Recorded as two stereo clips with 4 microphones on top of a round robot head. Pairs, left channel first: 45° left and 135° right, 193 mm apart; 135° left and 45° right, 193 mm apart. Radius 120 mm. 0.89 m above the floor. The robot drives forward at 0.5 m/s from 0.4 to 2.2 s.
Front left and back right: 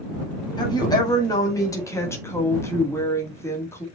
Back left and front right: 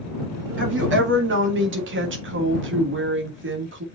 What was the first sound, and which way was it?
A woman speaking, 25° right.